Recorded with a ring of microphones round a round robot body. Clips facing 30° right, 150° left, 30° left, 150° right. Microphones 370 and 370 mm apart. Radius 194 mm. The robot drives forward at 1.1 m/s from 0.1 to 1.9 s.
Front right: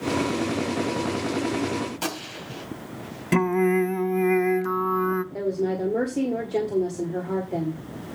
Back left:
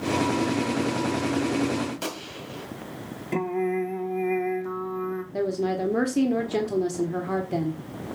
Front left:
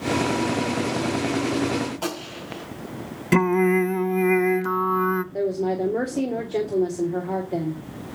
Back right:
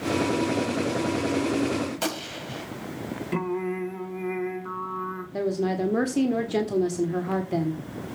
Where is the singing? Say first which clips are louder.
Front right 5 dB, front left 10 dB; 20° left, 0.9 m.